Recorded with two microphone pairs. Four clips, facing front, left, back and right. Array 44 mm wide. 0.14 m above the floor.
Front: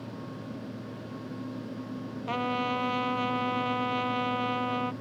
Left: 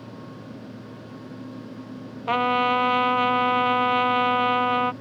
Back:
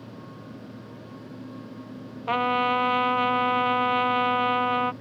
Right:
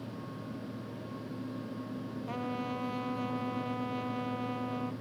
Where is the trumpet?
120° left.